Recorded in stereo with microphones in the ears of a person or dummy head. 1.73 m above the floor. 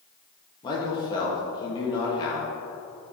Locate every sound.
0.6 s a man speaking: 25° left (ahead or behind), 2 m